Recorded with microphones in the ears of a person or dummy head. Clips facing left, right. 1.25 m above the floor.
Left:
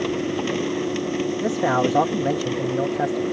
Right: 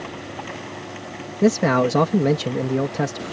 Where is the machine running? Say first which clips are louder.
Left 10 dB; 45° left (ahead or behind).